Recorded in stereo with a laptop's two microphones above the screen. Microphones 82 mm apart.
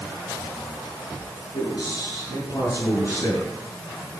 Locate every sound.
1.5 s a man speaking: 65° left (ahead or behind), 7.5 m; by 3.5 s 40° left (ahead or behind), 6.5 m